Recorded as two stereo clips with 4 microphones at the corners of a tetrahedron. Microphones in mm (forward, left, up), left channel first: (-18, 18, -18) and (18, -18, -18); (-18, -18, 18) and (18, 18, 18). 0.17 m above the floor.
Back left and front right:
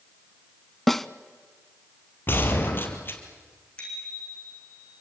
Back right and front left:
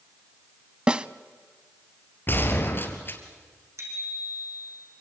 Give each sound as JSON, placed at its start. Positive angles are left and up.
{"t": 0.9, "sound": "a snare drum", "azimuth_deg": 55, "distance_m": 0.5}
{"t": 2.3, "sound": "a gunshot", "azimuth_deg": 180, "distance_m": 2.5}
{"t": 3.8, "sound": "a bicycle bell", "azimuth_deg": 65, "distance_m": 6.0}